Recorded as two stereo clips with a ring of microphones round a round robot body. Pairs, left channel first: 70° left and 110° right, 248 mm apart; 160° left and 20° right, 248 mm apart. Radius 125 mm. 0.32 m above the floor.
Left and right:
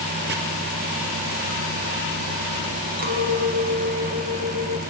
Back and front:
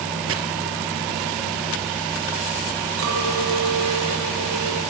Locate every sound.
0.3 s chopping: 60° right, 2 m
3.0 s a clink: 55° right, 2.5 m